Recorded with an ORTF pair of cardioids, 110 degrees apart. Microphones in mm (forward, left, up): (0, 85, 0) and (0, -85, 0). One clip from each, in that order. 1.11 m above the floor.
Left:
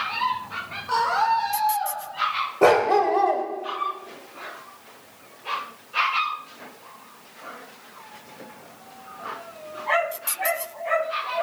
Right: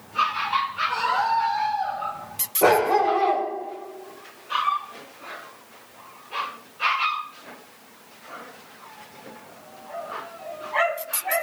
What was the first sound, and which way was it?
A scream, 50° left.